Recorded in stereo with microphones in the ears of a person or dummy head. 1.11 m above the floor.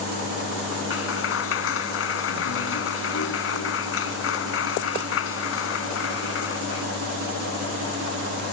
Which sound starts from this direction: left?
A clap, at 0.9 s.